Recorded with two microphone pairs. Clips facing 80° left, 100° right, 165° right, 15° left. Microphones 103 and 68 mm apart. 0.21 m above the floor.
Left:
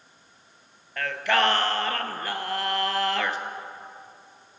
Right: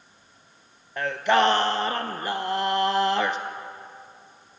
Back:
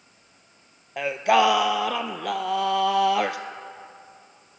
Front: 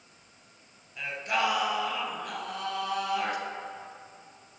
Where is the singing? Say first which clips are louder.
Right 3 dB, back 10 dB; 165° right, 0.6 m.